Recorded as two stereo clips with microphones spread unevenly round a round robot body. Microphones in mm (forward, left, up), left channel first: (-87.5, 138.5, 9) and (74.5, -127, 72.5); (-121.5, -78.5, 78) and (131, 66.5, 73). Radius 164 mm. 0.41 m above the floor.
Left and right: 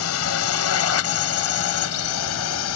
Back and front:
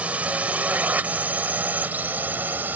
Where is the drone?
115° left.